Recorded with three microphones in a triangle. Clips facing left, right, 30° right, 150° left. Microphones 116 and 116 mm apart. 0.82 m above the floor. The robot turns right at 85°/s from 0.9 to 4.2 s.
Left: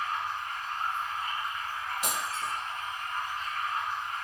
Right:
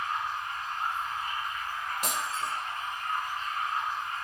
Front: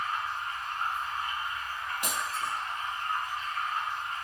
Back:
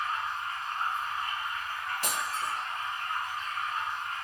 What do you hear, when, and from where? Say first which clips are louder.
0.0 s running water: even, even; 95° left, 1.7 m; by 4.2 s 15° left, 1.7 m
2.0 s breaking glass: right 1 dB, even; 95° right, 1.0 m; by 2.5 s 55° right, 1.0 m